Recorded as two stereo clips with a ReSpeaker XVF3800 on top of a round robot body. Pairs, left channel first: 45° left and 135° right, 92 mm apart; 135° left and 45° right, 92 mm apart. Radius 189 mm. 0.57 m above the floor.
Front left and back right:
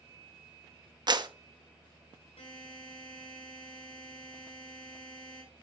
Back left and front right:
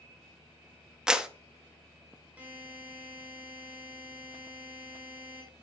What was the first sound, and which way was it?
A clap, 125° right.